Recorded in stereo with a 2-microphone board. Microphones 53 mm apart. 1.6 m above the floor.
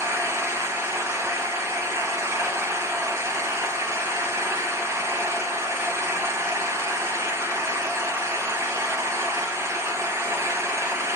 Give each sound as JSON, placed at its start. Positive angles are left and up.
{"t": 0.0, "sound": "an engine running", "side_deg": -60, "distance_m": 0.9}